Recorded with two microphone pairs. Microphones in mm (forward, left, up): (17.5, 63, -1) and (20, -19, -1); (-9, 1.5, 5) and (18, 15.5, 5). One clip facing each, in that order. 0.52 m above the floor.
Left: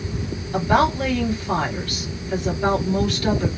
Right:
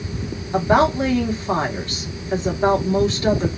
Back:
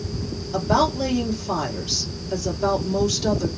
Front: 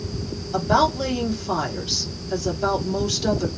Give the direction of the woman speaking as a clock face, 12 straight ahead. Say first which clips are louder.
Right 2 dB, front 1 dB; 2 o'clock.